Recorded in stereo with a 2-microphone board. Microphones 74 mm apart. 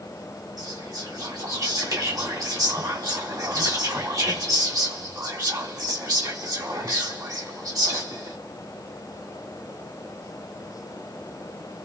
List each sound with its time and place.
0.6 s whispering: 60° right (ahead or behind), 2 m